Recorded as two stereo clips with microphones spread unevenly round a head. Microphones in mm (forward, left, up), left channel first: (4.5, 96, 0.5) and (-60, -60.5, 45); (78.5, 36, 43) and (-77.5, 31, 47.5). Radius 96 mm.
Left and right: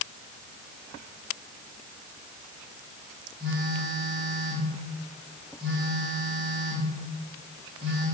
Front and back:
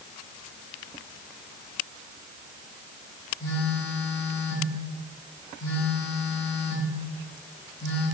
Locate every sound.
3.4 s a phone buzzing: 70° right, 2.5 m